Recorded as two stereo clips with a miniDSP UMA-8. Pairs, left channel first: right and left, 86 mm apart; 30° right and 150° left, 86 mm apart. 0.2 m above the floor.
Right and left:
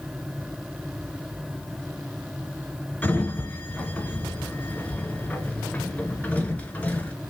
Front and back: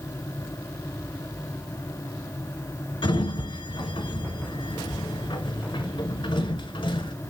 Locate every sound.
3.0 s a sliding door: 15° right, 0.5 m